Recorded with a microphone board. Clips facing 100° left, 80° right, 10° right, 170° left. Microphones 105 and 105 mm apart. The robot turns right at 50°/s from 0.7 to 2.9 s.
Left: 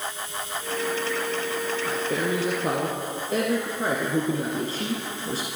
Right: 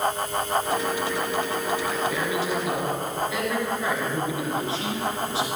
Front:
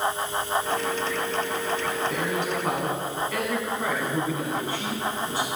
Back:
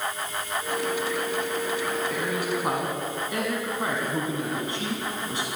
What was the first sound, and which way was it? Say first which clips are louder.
A man speaking: even, front 1 dB; 55° left.